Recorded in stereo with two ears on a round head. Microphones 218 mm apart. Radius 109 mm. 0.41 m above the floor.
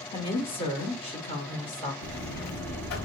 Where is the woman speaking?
25° left (ahead or behind), 1.3 m.